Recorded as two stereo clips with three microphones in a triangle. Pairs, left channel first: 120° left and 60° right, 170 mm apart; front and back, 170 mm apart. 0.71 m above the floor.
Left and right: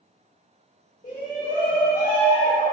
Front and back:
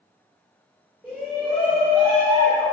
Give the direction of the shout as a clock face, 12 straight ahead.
9 o'clock.